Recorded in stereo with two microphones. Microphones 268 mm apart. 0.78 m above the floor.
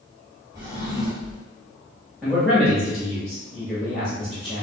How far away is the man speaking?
About 1.4 m.